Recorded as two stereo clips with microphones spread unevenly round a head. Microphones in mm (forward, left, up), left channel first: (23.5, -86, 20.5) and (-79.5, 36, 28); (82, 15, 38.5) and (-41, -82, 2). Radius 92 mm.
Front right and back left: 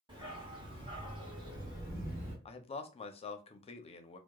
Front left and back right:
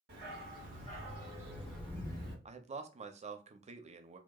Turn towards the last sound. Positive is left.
turn(degrees=-100)